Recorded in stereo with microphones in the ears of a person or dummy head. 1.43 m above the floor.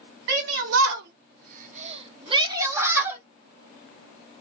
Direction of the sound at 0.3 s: 75° right (ahead or behind).